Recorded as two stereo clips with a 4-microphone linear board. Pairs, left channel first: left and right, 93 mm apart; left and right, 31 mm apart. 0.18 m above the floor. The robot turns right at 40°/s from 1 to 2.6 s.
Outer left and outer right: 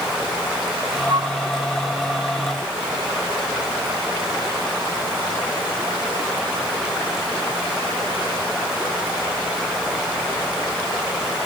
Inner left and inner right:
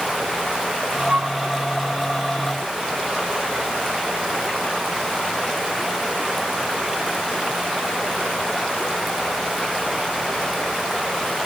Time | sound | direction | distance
1.1 | a flute | 55° right (ahead or behind) | ?